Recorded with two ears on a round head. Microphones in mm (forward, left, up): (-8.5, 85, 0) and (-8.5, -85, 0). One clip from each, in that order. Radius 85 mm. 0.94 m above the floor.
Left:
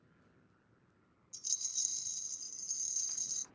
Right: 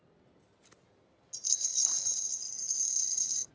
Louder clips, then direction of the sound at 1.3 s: Right 6 dB; 20° right (ahead or behind).